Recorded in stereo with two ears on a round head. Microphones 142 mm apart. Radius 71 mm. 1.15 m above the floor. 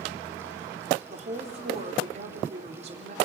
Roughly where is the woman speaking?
Right.